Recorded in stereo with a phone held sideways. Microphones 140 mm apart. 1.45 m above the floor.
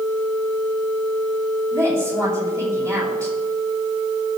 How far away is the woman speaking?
About 8.5 m.